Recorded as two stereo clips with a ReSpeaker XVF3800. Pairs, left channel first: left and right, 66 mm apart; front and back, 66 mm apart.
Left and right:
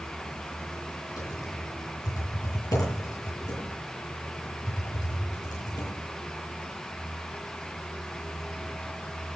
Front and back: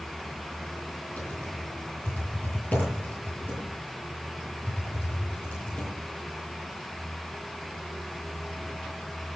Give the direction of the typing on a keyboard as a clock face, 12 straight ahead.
10 o'clock.